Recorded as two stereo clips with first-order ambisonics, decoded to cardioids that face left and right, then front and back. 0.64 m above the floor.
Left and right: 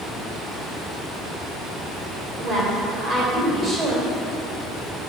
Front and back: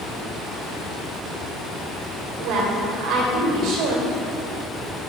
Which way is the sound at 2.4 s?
150° right.